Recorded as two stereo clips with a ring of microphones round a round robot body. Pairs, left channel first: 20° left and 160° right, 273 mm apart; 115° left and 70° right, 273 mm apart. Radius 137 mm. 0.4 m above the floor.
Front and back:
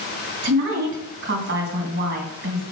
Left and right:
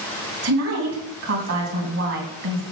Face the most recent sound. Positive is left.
turn(degrees=-105)